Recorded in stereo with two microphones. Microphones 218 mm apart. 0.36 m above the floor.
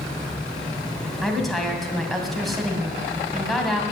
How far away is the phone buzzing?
No phone buzzing in this recording.